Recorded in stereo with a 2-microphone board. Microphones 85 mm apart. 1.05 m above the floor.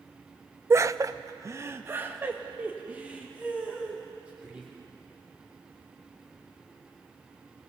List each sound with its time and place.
0.7 s laughter: 30° right (ahead or behind), 0.6 m; by 4.7 s 15° right (ahead or behind), 3.5 m